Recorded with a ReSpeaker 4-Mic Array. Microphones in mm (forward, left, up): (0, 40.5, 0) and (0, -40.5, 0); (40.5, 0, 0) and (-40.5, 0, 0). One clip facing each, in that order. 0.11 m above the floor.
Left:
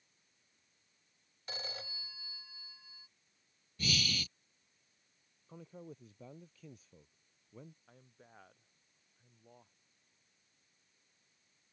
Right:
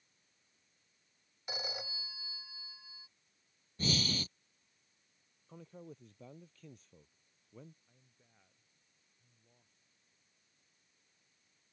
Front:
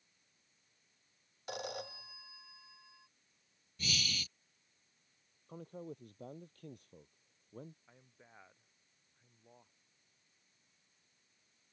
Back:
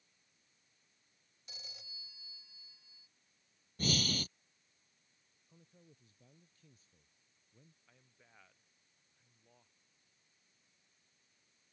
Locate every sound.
1.5 s a phone ringing: 15° right
3.8 s breathing: 140° right
5.5 s a man speaking: 5° left
7.9 s a man speaking: 65° left